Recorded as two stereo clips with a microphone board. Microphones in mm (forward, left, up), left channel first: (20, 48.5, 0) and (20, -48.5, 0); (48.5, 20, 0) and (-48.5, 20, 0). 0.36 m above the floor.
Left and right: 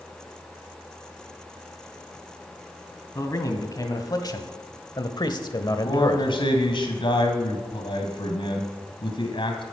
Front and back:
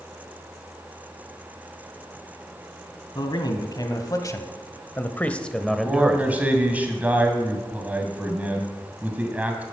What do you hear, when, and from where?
3.1 s a man speaking: 40° left, 2 m; by 6.3 s 115° left, 1.1 m
5.7 s a man speaking: 105° left, 2.5 m